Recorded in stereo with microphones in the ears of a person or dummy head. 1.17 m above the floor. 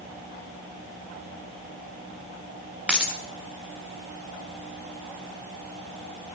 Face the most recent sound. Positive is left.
turn(degrees=0)  # may be behind; listen again after turning